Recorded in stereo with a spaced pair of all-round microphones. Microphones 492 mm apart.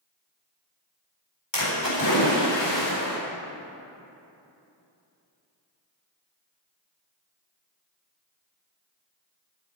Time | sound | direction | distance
1.5 | a splash | 60° left (ahead or behind) | 4.5 m